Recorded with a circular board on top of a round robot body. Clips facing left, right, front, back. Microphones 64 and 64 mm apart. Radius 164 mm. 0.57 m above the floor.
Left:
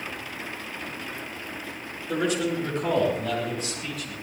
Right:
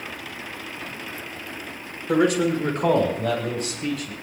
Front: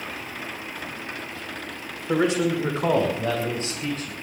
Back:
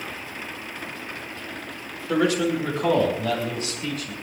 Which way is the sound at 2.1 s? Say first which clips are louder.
Right 6 dB, even; 65° right.